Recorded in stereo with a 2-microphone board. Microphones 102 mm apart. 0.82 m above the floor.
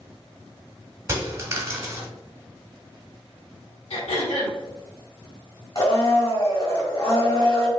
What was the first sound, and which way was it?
A dropped coin, 30° right (ahead or behind).